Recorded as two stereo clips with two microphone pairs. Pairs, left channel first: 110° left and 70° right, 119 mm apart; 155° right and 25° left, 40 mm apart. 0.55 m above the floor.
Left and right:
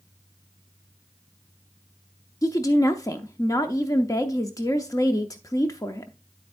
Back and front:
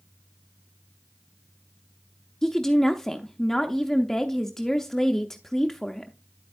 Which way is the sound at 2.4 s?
135° left.